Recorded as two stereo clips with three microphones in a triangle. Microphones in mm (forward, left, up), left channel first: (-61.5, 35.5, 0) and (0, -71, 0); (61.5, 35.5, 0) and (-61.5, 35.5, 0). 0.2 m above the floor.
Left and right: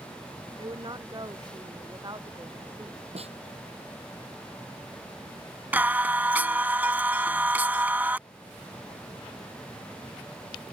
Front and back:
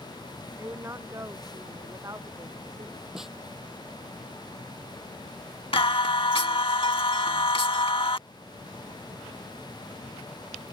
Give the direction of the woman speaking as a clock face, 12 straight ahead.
4 o'clock.